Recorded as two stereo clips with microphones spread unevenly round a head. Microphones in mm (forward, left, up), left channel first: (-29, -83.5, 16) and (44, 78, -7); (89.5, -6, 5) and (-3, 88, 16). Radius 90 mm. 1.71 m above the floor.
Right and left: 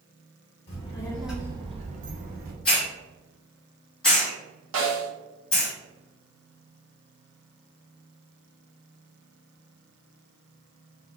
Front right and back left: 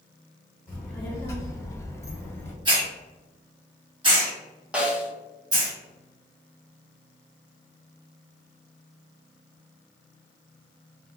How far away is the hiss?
About 1.3 m.